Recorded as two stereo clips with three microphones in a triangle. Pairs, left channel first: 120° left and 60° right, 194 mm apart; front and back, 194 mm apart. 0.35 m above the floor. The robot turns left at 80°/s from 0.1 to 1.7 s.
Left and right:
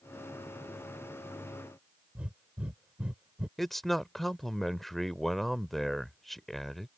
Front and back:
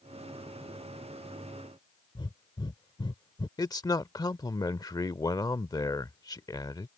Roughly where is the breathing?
Ahead.